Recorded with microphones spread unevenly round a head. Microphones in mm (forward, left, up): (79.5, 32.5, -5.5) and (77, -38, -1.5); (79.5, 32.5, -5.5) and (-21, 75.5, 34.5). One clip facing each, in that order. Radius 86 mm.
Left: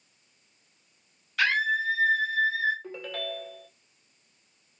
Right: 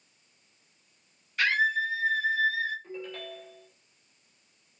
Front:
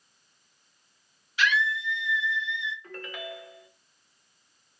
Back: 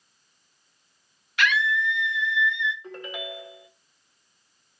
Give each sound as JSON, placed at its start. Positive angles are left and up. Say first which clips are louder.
{"t": 1.4, "sound": "a scream", "louder": "even, back 2 dB", "azimuth_deg": 125, "distance_m": 1.4}
{"t": 2.8, "sound": "a ringtone", "louder": "left 4 dB, back 3 dB", "azimuth_deg": 90, "distance_m": 2.0}